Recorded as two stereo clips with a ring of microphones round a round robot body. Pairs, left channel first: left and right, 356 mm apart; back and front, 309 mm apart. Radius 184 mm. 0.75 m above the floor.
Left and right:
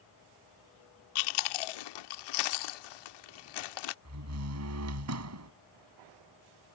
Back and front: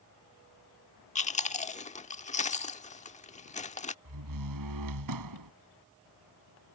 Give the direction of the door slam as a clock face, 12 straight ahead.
1 o'clock.